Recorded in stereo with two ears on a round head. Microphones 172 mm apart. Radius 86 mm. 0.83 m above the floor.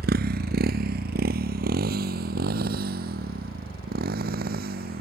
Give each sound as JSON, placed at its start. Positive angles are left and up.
{"t": 0.0, "sound": "a motorcycle", "side_deg": -55}